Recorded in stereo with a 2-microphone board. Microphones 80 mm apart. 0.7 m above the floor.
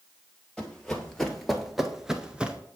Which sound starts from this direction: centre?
Running footsteps, at 0.6 s.